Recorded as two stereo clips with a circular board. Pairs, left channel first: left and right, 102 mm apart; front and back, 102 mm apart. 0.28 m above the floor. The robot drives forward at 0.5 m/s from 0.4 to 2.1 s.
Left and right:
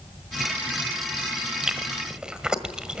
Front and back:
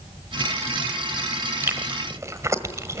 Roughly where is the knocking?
No knocking in this recording.